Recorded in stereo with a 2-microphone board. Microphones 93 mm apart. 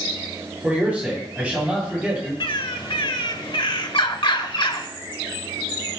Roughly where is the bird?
Left.